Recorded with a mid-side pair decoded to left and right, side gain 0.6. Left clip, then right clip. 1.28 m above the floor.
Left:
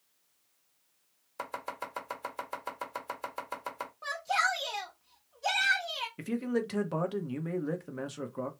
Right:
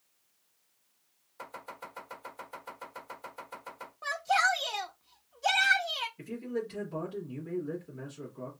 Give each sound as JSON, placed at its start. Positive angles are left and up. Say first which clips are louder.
{"t": 1.4, "sound": "chopping", "louder": "left 5 dB", "azimuth_deg": 60, "distance_m": 1.7}
{"t": 4.0, "sound": "a shout", "louder": "right 3 dB", "azimuth_deg": -15, "distance_m": 0.7}
{"t": 6.2, "sound": "a man speaking", "louder": "left 3 dB", "azimuth_deg": 60, "distance_m": 1.0}